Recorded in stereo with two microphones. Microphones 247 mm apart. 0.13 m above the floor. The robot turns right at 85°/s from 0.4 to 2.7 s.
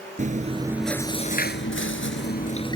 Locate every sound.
0.2 s chewing: 40° right; by 2.8 s 160° left